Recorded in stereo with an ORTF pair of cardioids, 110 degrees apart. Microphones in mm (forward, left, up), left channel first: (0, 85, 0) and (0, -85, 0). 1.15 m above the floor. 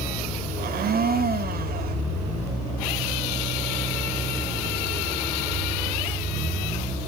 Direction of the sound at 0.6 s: 60° right.